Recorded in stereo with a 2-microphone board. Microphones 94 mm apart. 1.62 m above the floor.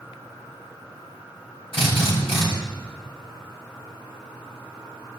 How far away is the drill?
About 6.5 m.